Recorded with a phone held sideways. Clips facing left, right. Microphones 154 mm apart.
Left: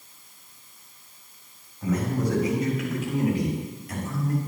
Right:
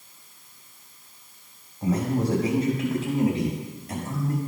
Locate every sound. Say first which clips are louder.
1.8 s a man speaking: right 2 dB; 35° right (ahead or behind), 5.5 m; by 4.4 s 30° right (ahead or behind), 6.5 m